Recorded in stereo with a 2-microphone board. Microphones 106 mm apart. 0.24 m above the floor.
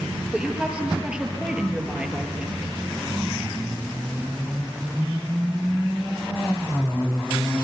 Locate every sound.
0.3 s a woman speaking: 10° right (ahead or behind), 4.5 m